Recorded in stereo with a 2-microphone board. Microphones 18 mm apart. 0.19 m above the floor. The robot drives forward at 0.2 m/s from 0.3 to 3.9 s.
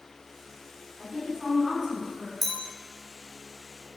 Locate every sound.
1.0 s a woman speaking: 20° right (ahead or behind), 1.9 m
2.4 s a clink: 15° left (ahead or behind), 0.6 m